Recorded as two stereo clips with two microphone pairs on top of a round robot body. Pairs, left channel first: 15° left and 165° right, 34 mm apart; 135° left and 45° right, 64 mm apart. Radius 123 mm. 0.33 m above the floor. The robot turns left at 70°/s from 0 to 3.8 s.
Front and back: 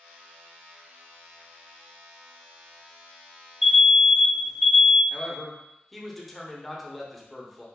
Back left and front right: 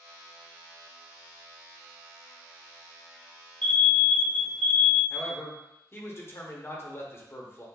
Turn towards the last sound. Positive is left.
turn(degrees=120)